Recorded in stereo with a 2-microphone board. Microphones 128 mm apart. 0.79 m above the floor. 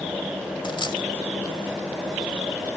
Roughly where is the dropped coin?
Left.